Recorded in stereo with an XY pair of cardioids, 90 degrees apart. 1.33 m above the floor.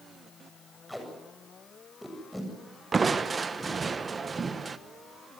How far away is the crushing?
About 1.3 m.